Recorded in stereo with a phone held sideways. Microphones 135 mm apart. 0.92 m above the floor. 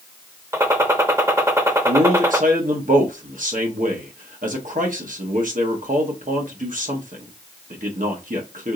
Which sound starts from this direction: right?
A man speaking, at 1.9 s.